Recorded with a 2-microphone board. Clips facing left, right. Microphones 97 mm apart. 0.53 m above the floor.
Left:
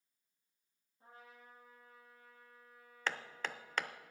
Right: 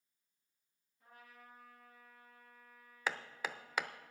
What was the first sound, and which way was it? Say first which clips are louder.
A trumpet: left 1 dB; 30° left (ahead or behind).